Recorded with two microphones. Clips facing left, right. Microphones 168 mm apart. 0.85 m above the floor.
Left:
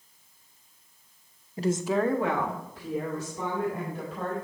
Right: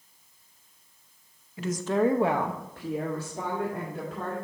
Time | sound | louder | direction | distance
1.6 | a woman speaking | even | 40° left (ahead or behind) | 0.6 m